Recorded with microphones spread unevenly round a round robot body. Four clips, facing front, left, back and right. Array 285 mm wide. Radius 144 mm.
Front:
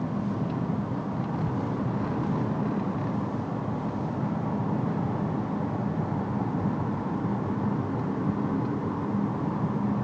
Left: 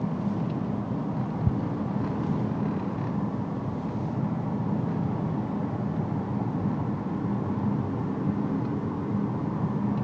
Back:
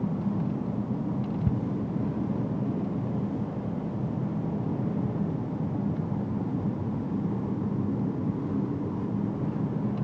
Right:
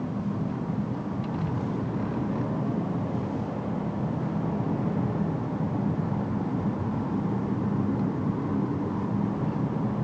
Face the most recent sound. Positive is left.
turn(degrees=120)